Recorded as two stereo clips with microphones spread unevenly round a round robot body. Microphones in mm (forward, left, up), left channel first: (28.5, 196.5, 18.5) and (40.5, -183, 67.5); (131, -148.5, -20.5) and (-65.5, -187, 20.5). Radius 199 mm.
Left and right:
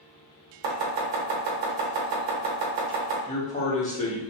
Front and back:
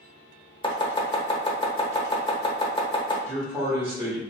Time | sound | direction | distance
0.6 | chopping | 55° right | 0.8 m
3.3 | a man speaking | 105° left | 0.7 m